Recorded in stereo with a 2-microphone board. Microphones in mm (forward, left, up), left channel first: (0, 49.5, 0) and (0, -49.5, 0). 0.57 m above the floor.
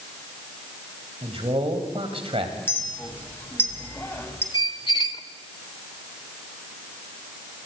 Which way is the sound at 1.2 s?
75° right (ahead or behind).